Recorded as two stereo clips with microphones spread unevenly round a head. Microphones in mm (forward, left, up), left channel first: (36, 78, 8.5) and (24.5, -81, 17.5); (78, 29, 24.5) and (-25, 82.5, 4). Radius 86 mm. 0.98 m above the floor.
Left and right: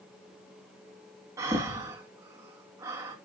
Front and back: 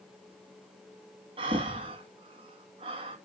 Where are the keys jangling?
I don't hear keys jangling.